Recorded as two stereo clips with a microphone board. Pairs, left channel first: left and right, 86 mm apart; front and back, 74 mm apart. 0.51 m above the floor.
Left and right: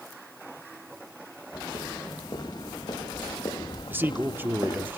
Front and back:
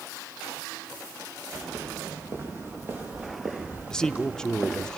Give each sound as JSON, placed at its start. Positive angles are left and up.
{"t": 1.5, "sound": "footsteps", "azimuth_deg": 130, "distance_m": 8.0}
{"t": 3.9, "sound": "a man speaking", "azimuth_deg": -70, "distance_m": 0.7}